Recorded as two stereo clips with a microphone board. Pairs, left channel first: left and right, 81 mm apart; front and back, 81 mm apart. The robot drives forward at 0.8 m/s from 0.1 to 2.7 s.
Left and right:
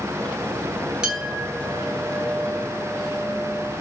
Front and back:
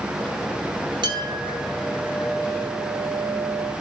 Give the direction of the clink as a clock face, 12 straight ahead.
6 o'clock.